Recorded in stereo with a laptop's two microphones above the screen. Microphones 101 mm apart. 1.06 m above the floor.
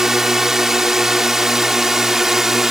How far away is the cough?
I don't hear a cough.